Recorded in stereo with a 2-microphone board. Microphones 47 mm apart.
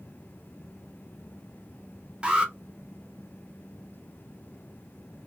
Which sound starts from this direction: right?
An alarm, at 2.2 s.